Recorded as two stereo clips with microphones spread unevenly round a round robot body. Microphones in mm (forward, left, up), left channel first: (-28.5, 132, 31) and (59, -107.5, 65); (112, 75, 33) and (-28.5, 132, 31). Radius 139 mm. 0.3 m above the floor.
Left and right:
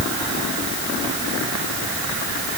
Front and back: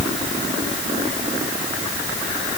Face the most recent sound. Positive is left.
No sound to turn to.